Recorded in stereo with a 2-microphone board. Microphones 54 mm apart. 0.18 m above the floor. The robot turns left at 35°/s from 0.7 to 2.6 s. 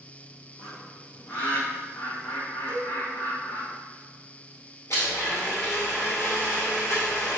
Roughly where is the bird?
Centre.